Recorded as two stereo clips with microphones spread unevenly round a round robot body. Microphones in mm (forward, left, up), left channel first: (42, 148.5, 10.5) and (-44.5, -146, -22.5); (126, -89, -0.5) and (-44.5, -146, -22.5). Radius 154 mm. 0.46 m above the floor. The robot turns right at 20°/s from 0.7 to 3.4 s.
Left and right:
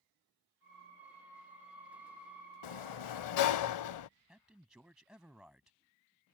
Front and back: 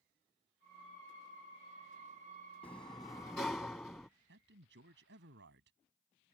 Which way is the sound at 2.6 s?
85° left.